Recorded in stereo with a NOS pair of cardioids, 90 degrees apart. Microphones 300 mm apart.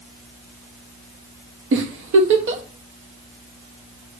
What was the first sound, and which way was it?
A giggle, 40° right.